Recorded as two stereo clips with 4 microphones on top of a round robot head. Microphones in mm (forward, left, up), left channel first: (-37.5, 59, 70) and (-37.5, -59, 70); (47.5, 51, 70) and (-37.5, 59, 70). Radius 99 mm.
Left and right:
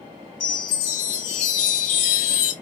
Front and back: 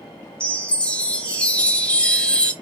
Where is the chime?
75° left, 1.2 m.